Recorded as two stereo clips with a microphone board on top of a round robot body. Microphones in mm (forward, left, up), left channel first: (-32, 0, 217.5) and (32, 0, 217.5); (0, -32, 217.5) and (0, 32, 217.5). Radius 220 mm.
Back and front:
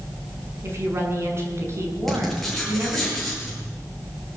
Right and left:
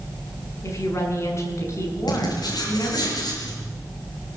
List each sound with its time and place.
0.6 s a woman speaking: 45° right, 7 m
2.1 s writing: 95° right, 7.5 m